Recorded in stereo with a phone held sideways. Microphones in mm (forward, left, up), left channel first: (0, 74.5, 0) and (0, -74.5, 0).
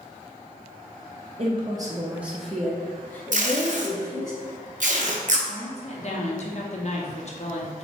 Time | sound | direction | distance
1.4 | a woman speaking | 40° right (ahead or behind) | 0.6 m
3.3 | tape being pulled | 60° right (ahead or behind) | 0.7 m
5.5 | a woman speaking | 50° left (ahead or behind) | 0.8 m